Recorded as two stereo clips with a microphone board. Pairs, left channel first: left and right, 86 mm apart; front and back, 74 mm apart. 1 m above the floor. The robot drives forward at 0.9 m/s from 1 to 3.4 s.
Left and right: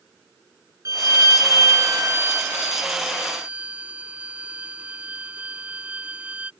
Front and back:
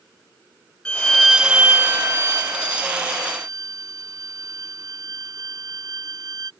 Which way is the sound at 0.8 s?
70° right.